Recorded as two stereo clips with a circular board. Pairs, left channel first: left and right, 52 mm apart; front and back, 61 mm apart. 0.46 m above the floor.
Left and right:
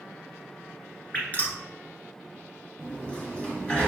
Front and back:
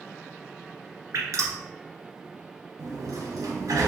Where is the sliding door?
160° left, 1.5 m.